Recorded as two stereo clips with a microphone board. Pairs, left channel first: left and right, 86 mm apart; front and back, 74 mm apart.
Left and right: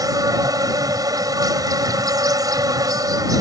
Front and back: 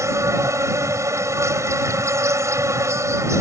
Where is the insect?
130° right.